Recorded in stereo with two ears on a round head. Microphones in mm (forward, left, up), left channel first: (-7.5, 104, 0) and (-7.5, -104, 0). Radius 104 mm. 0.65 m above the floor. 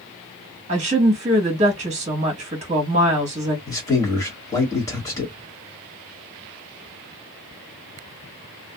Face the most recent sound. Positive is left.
turn(degrees=15)  # may be behind; listen again after turning